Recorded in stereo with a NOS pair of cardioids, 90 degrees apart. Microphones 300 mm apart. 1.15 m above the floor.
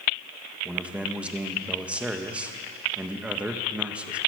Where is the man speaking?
5° right, 1.3 m.